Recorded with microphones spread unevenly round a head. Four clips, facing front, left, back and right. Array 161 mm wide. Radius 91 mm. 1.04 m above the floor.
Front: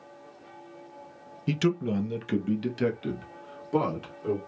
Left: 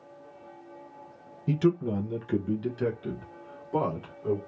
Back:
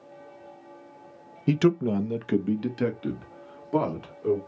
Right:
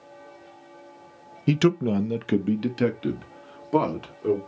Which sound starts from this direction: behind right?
A man speaking, at 1.5 s.